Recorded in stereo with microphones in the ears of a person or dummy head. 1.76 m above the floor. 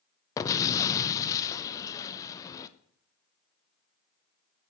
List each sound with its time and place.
0.4 s an explosion: 20° left (ahead or behind), 0.6 m